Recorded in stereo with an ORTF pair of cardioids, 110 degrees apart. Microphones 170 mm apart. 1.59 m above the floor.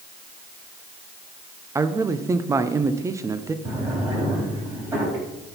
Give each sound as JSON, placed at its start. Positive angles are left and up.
{"t": 1.8, "sound": "a man speaking", "azimuth_deg": -20, "distance_m": 0.7}
{"t": 3.6, "sound": "a drawer", "azimuth_deg": -15, "distance_m": 4.0}